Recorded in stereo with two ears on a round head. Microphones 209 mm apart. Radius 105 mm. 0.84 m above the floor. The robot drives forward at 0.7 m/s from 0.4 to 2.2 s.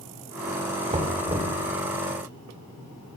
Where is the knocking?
25° right (ahead or behind), 2.5 m; by 1.6 s 20° right (ahead or behind), 3 m.